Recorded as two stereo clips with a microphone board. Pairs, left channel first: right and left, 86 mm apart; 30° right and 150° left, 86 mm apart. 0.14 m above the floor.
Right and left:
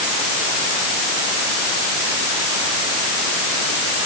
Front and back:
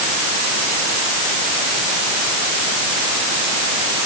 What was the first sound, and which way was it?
Only background noise.